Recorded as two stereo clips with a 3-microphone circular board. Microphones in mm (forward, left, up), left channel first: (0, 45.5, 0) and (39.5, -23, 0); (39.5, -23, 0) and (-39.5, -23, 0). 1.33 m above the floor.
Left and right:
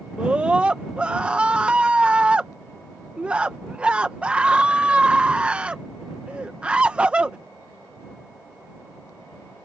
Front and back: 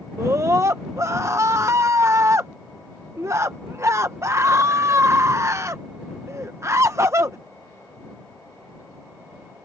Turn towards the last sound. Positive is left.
turn(degrees=-135)